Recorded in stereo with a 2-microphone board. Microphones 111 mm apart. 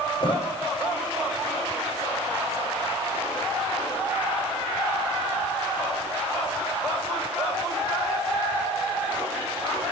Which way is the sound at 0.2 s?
45° left (ahead or behind).